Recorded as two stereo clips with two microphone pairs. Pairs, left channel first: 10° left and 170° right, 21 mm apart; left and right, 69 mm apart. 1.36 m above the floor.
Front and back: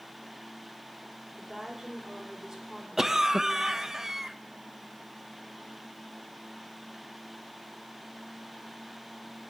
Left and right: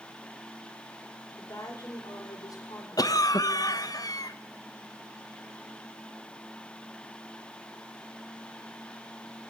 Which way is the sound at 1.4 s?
130° left.